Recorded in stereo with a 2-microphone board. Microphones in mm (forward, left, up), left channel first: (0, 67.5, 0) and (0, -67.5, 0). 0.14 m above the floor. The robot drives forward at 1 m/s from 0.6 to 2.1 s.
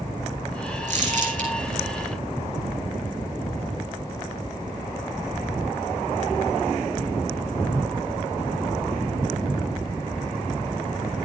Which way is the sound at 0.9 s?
60° right (ahead or behind).